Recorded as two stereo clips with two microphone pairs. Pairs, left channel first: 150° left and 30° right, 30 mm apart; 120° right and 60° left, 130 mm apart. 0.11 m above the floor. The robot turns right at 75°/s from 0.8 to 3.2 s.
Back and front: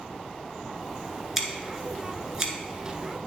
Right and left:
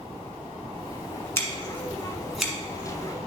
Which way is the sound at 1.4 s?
105° right.